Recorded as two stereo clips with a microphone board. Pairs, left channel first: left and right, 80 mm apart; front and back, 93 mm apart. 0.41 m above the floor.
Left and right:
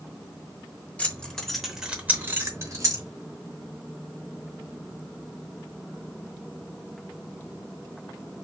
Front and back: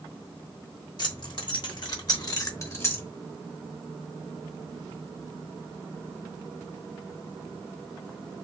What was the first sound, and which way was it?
Keys jangling, 20° left.